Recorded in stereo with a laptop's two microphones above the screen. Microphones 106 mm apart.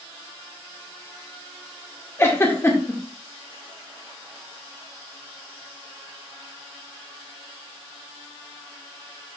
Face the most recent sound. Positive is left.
turn(degrees=25)  # may be behind; listen again after turning